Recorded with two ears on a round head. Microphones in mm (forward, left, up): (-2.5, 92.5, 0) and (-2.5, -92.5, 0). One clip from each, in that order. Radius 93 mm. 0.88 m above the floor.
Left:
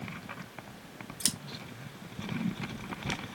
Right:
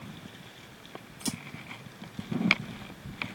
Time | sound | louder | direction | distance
1.2 | scissors | left 4 dB | 40° left (ahead or behind) | 0.8 m